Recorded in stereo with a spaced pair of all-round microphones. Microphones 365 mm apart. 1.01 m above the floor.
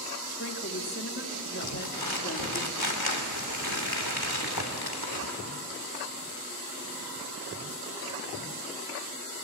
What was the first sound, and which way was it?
A woman speaking, 35° left (ahead or behind).